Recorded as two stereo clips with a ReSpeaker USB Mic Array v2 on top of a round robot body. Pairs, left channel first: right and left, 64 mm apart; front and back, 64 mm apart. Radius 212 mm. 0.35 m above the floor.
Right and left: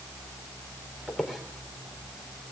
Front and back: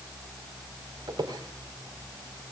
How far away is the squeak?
About 3.5 m.